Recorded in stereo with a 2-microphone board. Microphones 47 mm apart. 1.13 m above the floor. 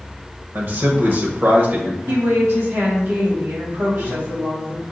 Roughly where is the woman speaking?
Right.